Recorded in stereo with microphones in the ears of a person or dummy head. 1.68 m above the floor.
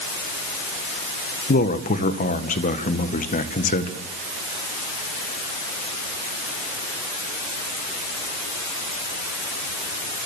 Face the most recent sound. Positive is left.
turn(degrees=45)  # may be behind; listen again after turning